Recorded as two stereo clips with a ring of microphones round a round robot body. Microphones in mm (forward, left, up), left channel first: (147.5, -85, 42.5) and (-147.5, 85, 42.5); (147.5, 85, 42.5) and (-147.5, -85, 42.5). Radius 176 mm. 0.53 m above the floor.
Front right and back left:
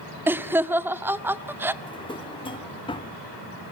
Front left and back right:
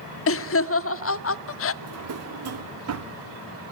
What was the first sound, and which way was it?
Laughter, 70° left.